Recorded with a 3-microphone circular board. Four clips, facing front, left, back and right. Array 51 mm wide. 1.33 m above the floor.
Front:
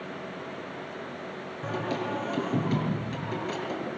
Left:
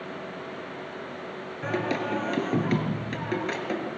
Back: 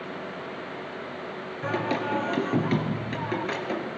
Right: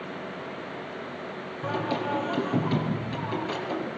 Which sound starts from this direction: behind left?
Singing, at 1.6 s.